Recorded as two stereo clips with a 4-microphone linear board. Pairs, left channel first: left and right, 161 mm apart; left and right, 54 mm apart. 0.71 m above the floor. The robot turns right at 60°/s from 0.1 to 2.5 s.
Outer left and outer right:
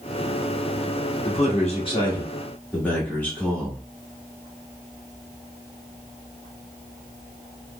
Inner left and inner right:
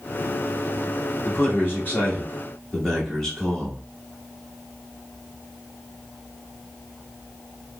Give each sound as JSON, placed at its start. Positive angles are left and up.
{"t": 1.2, "sound": "a man speaking", "azimuth_deg": 90, "distance_m": 1.5}